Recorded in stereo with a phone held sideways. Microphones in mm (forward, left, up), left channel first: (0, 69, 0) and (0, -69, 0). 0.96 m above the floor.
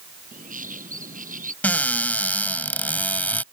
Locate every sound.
0.3 s a bird: 75° right (ahead or behind)
1.6 s a cupboard door: 10° left (ahead or behind)